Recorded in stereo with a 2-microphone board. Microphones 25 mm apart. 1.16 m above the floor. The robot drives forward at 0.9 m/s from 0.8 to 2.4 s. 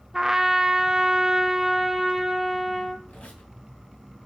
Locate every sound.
0.1 s a trumpet: 15° right (ahead or behind), 0.5 m; by 3.0 s 5° right (ahead or behind), 1.3 m
3.1 s a squeak: 55° left (ahead or behind), 2 m